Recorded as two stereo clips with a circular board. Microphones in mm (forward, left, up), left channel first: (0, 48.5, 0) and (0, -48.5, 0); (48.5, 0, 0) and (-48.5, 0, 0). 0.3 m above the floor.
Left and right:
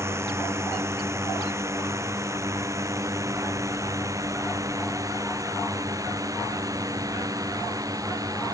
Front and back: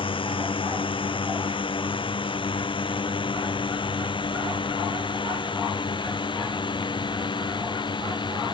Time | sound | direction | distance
0.0 | a drone | 30° right | ?